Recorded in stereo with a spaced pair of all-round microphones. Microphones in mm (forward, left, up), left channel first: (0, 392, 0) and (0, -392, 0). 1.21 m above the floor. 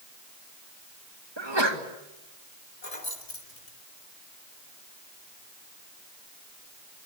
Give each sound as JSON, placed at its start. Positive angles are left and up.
{"t": 1.4, "sound": "a sneeze", "side_deg": -30, "distance_m": 2.5}
{"t": 2.8, "sound": "keys jangling", "side_deg": 60, "distance_m": 3.5}